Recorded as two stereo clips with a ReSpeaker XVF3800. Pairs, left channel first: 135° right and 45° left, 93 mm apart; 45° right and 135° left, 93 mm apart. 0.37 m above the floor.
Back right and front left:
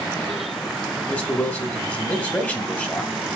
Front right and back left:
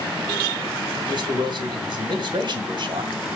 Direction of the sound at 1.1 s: 155° left.